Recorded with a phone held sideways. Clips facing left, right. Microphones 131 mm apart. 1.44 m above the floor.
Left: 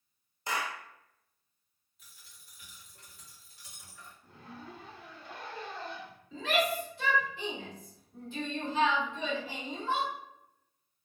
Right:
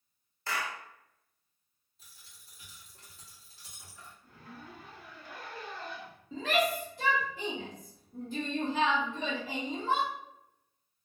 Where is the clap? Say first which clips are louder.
Left 1 dB; 20° left (ahead or behind), 0.7 m.